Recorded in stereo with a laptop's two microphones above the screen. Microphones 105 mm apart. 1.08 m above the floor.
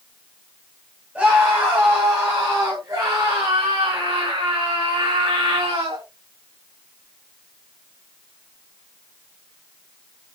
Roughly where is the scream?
Centre.